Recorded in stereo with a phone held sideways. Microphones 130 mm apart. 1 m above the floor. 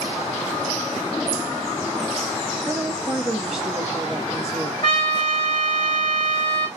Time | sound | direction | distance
2.7 | a woman speaking | 5° right (ahead or behind) | 1.1 m
4.8 | a trumpet | 40° left (ahead or behind) | 1.9 m